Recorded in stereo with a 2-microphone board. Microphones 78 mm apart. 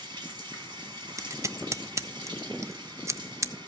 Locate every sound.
0.0 s running water: 80° right, 4 m
1.2 s scissors: 40° right (ahead or behind), 0.6 m